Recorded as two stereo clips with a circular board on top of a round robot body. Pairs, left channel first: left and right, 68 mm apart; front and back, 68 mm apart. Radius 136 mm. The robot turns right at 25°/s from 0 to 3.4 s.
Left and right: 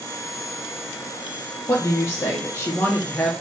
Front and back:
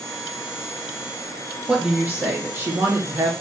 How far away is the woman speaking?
About 1.3 m.